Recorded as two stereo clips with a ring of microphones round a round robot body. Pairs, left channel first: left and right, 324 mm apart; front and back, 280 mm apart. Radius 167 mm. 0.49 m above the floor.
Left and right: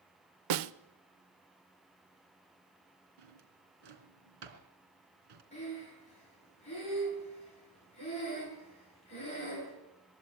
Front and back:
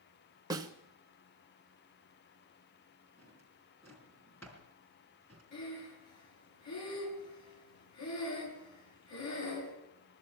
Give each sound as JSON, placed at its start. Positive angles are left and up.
{"t": 0.5, "sound": "a snare drum", "azimuth_deg": -100, "distance_m": 0.8}
{"t": 3.2, "sound": "a drawer", "azimuth_deg": -85, "distance_m": 3.0}
{"t": 5.5, "sound": "breathing", "azimuth_deg": 20, "distance_m": 7.5}